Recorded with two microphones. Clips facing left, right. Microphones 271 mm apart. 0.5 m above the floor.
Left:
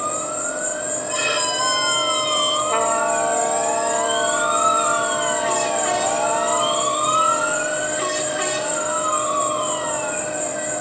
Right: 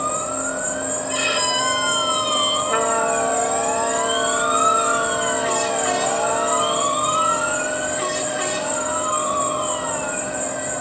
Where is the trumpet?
15° right (ahead or behind), 0.7 m.